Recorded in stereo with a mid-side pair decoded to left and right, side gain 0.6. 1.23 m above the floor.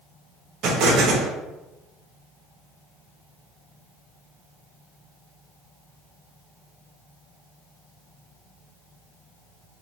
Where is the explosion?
60° right, 0.9 m.